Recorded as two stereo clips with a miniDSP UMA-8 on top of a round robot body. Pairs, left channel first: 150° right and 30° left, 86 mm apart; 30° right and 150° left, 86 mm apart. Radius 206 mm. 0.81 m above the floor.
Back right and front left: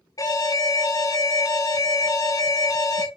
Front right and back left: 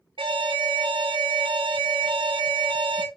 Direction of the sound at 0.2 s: 160° left.